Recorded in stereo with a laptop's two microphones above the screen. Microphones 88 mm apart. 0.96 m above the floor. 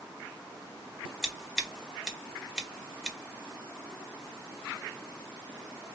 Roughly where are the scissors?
Centre.